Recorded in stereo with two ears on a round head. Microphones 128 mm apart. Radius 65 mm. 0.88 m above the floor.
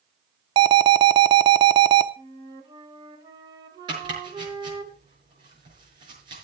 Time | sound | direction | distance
0.6 | an alarm | 35° right (ahead or behind) | 0.9 m
2.2 | a flute | 30° right (ahead or behind) | 2 m
3.9 | chopping | 30° right (ahead or behind) | 6 m